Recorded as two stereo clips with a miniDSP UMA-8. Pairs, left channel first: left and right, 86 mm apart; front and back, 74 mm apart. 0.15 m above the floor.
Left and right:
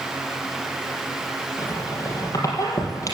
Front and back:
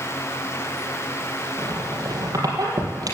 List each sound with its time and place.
1.6 s a squeak: 140° left, 4.5 m